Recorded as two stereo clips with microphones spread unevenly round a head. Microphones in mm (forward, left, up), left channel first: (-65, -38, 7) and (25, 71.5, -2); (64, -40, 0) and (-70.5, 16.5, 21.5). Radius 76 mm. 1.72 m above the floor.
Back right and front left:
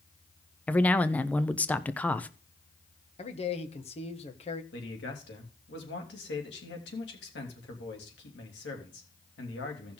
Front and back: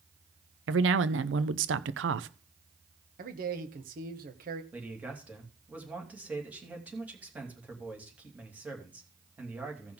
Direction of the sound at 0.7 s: 150° left.